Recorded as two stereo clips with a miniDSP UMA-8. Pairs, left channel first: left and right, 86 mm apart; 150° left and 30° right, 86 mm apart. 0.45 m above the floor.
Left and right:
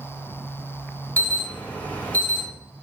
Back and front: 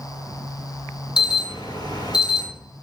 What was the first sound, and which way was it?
An alarm, 155° left.